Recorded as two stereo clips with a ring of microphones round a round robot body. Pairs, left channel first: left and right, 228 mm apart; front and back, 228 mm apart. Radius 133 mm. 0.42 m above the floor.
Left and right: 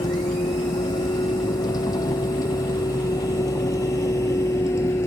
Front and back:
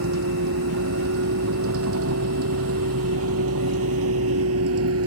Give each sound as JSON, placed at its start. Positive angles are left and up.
{"t": 0.0, "sound": "a vehicle", "azimuth_deg": 165}